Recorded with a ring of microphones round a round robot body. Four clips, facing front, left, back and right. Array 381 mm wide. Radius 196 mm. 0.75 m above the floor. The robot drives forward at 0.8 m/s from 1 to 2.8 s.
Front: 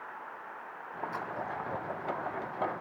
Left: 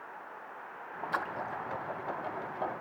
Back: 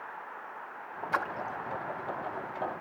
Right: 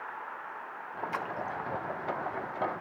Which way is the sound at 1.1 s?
170° left.